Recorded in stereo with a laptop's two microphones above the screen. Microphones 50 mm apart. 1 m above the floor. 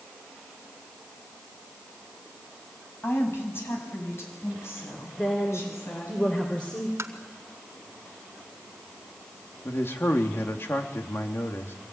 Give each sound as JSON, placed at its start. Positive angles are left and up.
{"t": 3.0, "sound": "a woman speaking", "side_deg": 50, "distance_m": 6.5}
{"t": 5.2, "sound": "a woman speaking", "side_deg": 20, "distance_m": 3.5}
{"t": 7.0, "sound": "tapping", "side_deg": -70, "distance_m": 1.4}
{"t": 9.7, "sound": "a man speaking", "side_deg": 55, "distance_m": 2.5}